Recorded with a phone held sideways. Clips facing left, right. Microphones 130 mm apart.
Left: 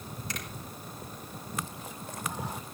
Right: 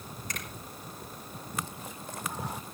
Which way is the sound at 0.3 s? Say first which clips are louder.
Left 1 dB; 50° right (ahead or behind).